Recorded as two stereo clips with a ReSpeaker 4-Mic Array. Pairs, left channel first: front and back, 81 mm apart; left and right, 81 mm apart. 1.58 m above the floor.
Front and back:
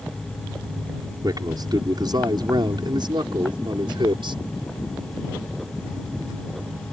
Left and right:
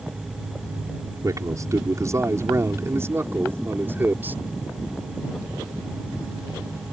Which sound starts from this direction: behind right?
A man speaking, at 1.2 s.